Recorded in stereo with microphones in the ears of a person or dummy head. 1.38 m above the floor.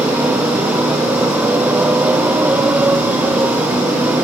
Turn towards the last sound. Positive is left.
turn(degrees=-10)  # may be behind; listen again after turning